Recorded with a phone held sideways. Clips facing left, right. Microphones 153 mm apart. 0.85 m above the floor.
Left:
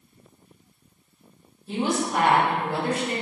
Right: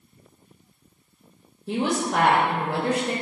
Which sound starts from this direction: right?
A woman speaking, at 1.7 s.